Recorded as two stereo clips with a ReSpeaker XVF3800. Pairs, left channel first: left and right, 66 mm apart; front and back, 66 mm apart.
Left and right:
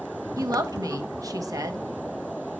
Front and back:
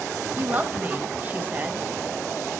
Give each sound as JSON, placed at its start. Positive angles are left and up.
{"t": 0.4, "sound": "a woman speaking", "azimuth_deg": -115, "distance_m": 1.1}